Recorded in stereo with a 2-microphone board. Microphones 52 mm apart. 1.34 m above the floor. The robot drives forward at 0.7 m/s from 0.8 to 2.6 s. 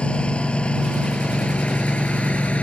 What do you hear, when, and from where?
0.0 s a lawn mower: 25° left (ahead or behind); by 2.6 s 30° left (ahead or behind)